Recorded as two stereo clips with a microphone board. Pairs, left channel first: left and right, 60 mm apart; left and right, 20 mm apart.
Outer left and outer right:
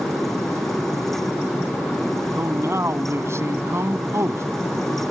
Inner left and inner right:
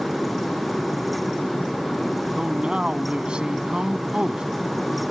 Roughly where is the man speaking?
Right.